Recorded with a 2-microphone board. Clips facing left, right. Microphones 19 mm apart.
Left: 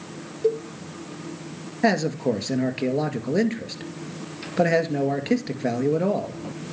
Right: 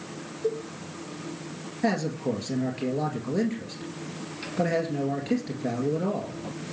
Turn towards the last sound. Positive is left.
turn(degrees=35)  # may be behind; listen again after turning